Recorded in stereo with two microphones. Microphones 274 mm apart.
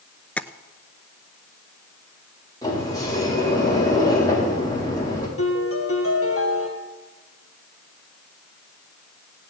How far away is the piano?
About 2.5 m.